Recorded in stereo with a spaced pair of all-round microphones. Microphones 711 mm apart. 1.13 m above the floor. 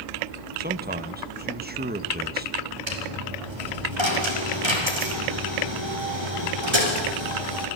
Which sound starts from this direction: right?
A dropped coin, at 2.9 s.